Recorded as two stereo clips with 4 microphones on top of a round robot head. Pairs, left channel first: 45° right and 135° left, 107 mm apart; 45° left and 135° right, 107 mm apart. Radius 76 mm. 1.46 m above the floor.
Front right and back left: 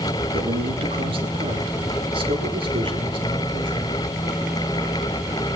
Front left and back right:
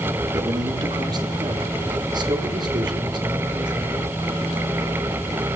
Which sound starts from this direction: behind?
A man speaking, at 0.3 s.